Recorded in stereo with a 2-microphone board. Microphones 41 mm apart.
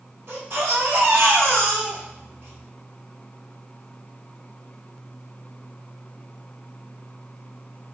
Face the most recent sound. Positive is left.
turn(degrees=-70)  # may be behind; listen again after turning